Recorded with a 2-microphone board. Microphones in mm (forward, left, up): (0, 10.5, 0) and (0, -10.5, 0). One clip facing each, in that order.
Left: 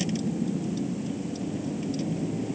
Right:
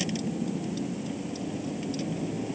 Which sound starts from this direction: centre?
A vehicle, at 0.0 s.